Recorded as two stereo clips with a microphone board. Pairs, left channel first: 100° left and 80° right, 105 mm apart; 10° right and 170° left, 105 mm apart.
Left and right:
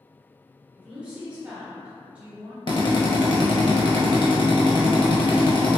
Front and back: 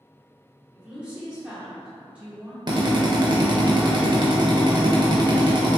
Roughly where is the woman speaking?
Behind right.